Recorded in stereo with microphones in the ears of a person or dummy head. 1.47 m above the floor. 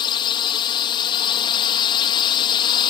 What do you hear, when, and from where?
0.0 s a drone: 30° left (ahead or behind)